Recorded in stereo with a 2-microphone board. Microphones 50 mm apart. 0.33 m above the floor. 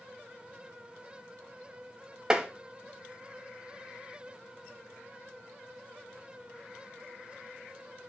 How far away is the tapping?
About 0.6 m.